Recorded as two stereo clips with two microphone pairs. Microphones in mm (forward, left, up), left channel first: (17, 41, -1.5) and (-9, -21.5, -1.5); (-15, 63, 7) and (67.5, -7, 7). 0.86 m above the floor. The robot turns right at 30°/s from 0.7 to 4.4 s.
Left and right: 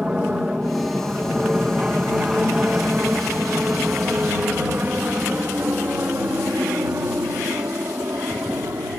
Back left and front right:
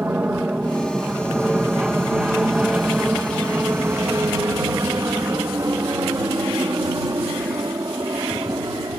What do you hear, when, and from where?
0.0 s an aircraft: 75° right; by 9.0 s 90° right